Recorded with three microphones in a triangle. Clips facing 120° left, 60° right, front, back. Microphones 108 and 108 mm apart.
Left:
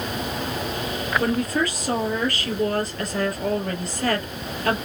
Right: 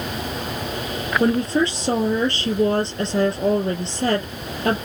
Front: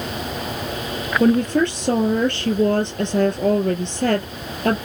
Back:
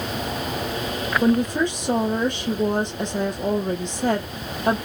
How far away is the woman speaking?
About 3 m.